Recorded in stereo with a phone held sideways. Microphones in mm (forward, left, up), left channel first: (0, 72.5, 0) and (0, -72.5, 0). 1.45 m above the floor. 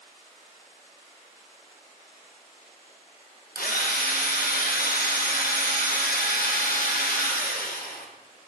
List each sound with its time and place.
3.5 s a drill: 85° left, 1.3 m